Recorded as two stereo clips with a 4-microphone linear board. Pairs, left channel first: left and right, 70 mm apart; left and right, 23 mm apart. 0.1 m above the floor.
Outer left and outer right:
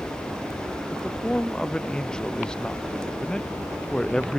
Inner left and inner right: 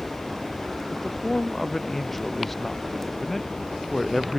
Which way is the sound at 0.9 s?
10° left (ahead or behind).